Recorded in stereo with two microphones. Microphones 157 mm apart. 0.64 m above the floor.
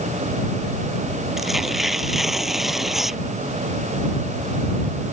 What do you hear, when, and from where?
1.4 s tearing paper: centre (ahead or behind)